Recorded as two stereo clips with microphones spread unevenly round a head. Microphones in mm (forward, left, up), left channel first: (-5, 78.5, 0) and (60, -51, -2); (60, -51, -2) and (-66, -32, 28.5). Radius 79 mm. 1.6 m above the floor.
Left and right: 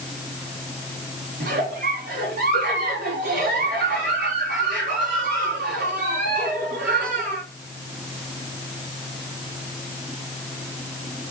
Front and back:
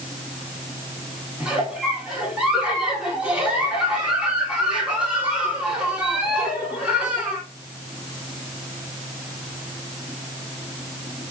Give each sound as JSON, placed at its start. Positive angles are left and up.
{"t": 1.4, "sound": "a giggle", "azimuth_deg": -105, "distance_m": 4.0}